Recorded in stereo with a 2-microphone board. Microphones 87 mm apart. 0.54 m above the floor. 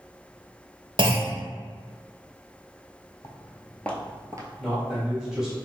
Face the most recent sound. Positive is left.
turn(degrees=-5)  # may be behind; listen again after turning